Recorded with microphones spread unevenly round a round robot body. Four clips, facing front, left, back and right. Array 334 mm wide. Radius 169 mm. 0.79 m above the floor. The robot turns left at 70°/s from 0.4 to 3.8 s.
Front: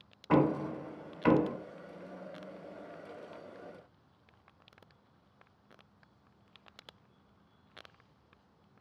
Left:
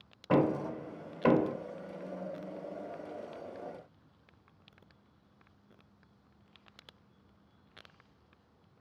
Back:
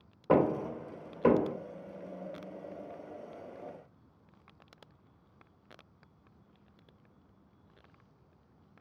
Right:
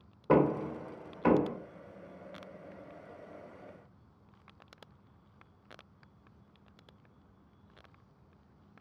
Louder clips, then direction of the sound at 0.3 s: Right 2 dB, back 1 dB; 135° right.